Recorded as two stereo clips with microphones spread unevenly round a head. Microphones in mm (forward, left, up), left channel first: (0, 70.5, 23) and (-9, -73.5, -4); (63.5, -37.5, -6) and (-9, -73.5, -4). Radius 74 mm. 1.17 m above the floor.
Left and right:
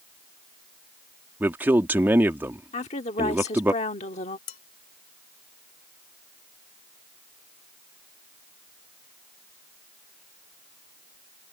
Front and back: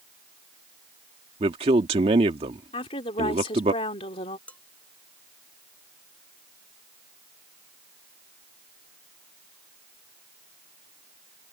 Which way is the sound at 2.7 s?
40° left.